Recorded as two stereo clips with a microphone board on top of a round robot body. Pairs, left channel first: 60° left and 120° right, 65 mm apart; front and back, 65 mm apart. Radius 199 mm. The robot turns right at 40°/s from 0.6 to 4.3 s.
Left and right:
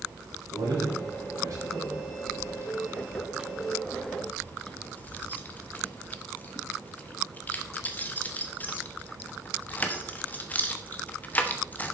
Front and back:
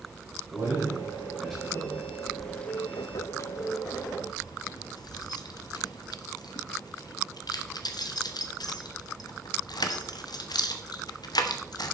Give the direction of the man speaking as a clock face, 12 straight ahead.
4 o'clock.